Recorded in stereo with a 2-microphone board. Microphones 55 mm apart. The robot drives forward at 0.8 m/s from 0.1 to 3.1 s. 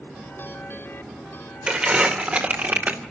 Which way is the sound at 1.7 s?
20° right (ahead or behind).